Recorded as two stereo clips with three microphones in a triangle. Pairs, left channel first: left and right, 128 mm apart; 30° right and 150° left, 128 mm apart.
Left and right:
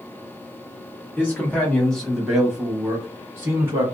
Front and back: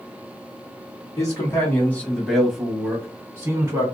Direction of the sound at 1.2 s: 20° left.